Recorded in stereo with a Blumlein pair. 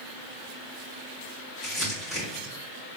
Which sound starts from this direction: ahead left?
Crumpling, at 1.6 s.